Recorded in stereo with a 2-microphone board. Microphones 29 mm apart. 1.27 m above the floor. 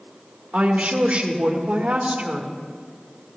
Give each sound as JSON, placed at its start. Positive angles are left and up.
{"t": 0.5, "sound": "a woman speaking", "side_deg": -60, "distance_m": 1.7}